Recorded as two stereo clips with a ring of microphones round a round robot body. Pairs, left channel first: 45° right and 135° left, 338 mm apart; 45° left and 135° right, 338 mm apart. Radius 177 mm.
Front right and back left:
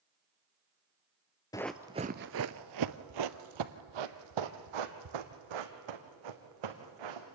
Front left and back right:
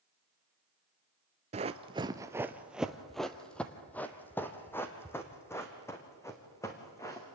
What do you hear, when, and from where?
1.5 s running footsteps: 105° right, 0.5 m; by 7.2 s 125° left, 3 m